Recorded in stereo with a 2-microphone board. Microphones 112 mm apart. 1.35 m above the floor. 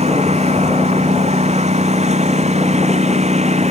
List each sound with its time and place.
0.0 s a lawn mower: 80° right; by 3.7 s 85° right